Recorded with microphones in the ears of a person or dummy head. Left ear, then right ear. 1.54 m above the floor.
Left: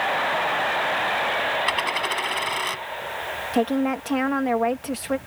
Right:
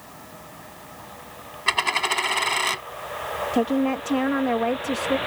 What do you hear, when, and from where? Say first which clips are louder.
1.7 s a dropped coin: right 1 dB; 10° right (ahead or behind)
3.5 s a woman speaking: left 1 dB; 15° left (ahead or behind)